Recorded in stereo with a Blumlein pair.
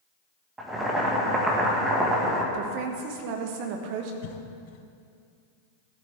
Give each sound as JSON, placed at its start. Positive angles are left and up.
{"t": 0.6, "sound": "boiling", "azimuth_deg": -10, "distance_m": 1.4}
{"t": 2.5, "sound": "a woman speaking", "azimuth_deg": -45, "distance_m": 1.3}
{"t": 4.2, "sound": "a cough", "azimuth_deg": 50, "distance_m": 0.8}